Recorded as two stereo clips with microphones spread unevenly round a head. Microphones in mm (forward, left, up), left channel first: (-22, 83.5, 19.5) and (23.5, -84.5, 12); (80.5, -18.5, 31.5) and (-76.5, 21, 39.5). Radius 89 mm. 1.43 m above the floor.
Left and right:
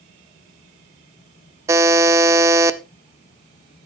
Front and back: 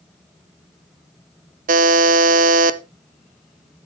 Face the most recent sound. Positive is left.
turn(degrees=-150)